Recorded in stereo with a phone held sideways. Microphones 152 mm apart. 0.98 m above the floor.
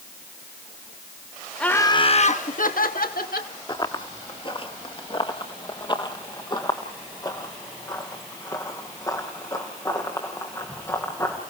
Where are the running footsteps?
30° left (ahead or behind), 1.1 m; by 11.4 s 20° left (ahead or behind), 5 m.